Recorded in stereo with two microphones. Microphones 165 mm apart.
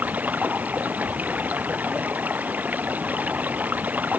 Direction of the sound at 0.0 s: 10° right (ahead or behind).